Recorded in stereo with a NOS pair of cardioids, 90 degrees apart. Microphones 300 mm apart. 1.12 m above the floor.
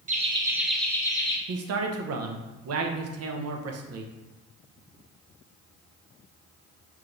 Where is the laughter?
25° right, 0.9 m; by 1.4 s 20° left, 1.3 m.